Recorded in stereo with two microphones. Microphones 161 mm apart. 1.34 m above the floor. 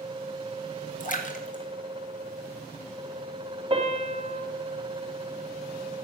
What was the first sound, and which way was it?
A splash, 55° left (ahead or behind).